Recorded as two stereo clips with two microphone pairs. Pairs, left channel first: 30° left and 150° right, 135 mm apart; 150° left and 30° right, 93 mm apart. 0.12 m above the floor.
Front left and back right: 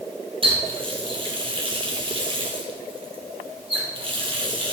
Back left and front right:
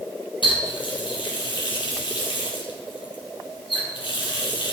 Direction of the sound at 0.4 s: 165° left.